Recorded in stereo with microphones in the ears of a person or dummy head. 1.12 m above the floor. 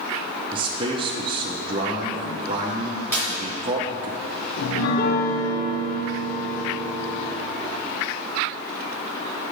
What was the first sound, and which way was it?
A man speaking, 30° right (ahead or behind).